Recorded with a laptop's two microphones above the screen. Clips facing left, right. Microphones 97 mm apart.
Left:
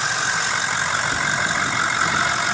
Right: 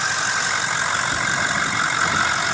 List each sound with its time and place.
Only background noise.